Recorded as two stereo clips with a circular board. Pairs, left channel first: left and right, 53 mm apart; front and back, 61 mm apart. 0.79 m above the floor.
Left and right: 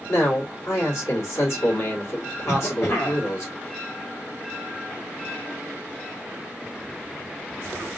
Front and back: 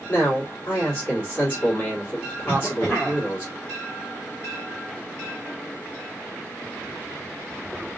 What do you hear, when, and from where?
0.1 s a man speaking: 60° left, 2.5 m
2.5 s a cough: 60° left, 2.0 m